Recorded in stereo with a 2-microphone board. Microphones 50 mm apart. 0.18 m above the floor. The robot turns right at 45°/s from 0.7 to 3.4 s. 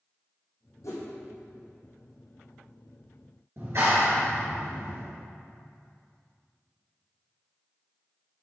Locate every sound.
0.8 s a whoosh: 70° left (ahead or behind), 3 m; by 1.0 s 60° left (ahead or behind), 3 m
3.6 s a clap: 60° right (ahead or behind), 3 m